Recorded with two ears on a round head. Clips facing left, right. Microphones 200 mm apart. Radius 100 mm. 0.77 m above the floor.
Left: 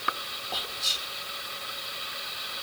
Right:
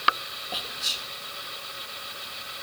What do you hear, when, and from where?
0.5 s whispering: 10° right (ahead or behind), 1.0 m